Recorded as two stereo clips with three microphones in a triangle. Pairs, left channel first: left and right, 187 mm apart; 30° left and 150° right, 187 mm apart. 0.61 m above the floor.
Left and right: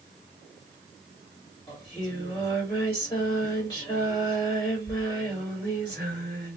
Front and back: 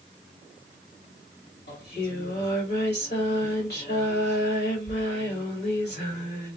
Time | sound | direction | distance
1.7 | singing | 30° left | 1.9 m